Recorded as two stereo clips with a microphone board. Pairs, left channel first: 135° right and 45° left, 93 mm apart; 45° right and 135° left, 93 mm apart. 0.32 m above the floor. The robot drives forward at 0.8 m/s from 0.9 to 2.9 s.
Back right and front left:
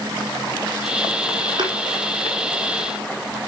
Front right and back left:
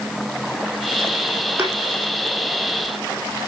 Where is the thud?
75° left, 4 m; by 1.8 s 80° left, 4 m.